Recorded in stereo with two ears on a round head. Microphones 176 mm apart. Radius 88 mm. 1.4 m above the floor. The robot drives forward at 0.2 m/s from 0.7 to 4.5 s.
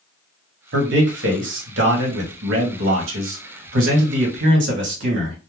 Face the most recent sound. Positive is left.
turn(degrees=-70)  # may be behind; listen again after turning